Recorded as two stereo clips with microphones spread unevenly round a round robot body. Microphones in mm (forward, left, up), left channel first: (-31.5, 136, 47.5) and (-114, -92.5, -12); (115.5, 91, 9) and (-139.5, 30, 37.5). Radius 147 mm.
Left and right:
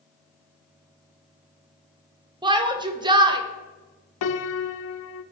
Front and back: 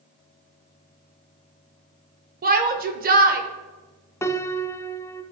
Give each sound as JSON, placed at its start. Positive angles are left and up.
{"t": 2.4, "sound": "a shout", "azimuth_deg": -130, "distance_m": 1.0}
{"t": 4.2, "sound": "a piano", "azimuth_deg": 95, "distance_m": 0.6}